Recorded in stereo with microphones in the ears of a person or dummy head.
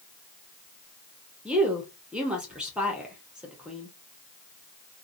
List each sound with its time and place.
1.4 s a woman speaking: 5° right (ahead or behind), 0.7 m